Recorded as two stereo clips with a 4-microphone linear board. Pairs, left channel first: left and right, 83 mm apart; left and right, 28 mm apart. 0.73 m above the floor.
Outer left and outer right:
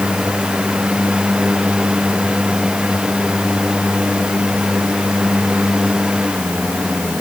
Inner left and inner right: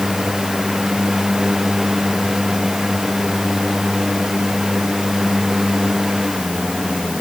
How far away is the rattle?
I don't hear a rattle.